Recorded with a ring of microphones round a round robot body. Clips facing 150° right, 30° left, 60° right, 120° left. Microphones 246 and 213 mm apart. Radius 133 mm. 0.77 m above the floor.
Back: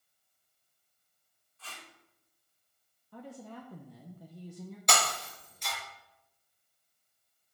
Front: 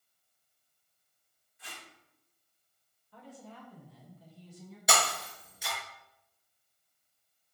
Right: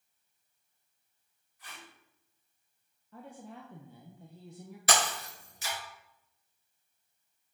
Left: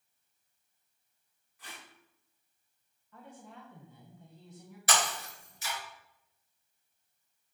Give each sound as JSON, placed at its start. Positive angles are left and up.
{"t": 1.6, "sound": "tape being pulled", "azimuth_deg": 105, "distance_m": 2.0}
{"t": 3.1, "sound": "a woman speaking", "azimuth_deg": -115, "distance_m": 1.0}
{"t": 4.9, "sound": "breaking glass", "azimuth_deg": -55, "distance_m": 3.5}